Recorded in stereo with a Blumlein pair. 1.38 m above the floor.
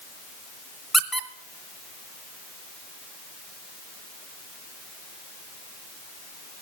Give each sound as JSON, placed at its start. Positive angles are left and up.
{"t": 0.9, "sound": "a squeak", "azimuth_deg": 0, "distance_m": 0.9}